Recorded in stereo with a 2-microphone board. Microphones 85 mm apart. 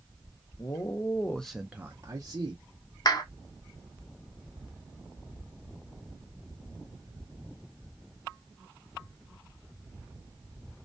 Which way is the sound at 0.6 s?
50° left (ahead or behind).